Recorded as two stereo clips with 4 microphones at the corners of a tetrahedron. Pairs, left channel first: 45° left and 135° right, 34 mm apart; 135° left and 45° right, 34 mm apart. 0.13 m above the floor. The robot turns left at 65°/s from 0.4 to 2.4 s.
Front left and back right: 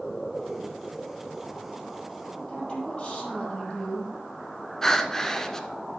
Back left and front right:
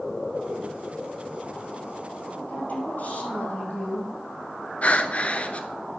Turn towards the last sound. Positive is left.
turn(degrees=115)